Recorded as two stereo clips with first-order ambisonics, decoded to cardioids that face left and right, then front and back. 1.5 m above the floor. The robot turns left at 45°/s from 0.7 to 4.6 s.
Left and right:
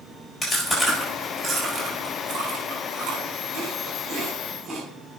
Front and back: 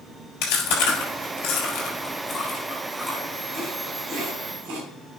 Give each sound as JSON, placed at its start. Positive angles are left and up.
{"t": 0.4, "sound": "chewing", "azimuth_deg": 20, "distance_m": 4.5}